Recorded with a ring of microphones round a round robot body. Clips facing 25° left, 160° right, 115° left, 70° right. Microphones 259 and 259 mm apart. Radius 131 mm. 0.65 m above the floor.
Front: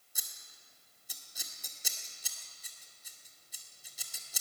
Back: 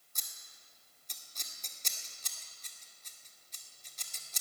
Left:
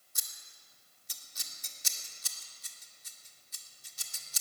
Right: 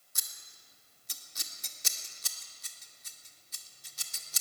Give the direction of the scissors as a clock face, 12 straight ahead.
2 o'clock.